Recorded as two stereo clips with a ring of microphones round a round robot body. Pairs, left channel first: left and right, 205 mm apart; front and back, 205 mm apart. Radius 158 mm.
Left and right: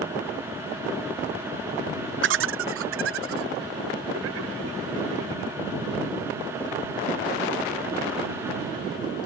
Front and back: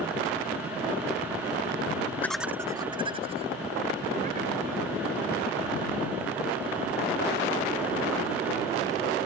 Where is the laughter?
80° right; by 5.6 s 120° right.